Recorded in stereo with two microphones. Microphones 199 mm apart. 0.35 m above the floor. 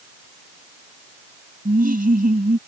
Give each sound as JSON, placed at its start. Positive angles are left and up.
{"t": 1.6, "sound": "laughter", "side_deg": -45}